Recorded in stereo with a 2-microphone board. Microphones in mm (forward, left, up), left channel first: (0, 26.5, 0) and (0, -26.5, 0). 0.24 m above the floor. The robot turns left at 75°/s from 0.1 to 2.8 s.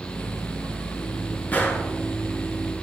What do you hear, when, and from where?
1.5 s a gunshot: 25° left (ahead or behind), 1.6 m; by 1.9 s 50° left (ahead or behind), 1.6 m